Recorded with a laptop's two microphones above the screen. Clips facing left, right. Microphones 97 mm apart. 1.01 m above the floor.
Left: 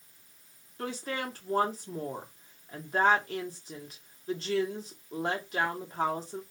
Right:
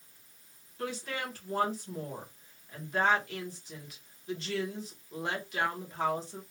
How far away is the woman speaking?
About 0.9 m.